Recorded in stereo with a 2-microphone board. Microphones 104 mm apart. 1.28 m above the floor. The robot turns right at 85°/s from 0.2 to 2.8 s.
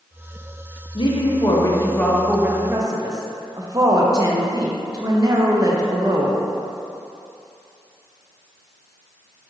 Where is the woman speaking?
70° left, 0.5 m; by 6.4 s 130° right, 0.5 m.